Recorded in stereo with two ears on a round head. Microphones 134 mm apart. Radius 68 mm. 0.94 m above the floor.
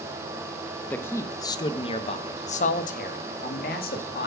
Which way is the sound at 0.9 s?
10° left (ahead or behind).